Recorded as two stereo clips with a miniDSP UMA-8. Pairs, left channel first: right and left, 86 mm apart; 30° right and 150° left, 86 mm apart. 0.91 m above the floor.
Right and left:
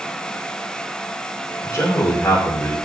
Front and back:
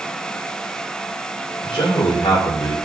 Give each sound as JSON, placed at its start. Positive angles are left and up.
{"t": 1.6, "sound": "a man speaking", "azimuth_deg": -40, "distance_m": 3.5}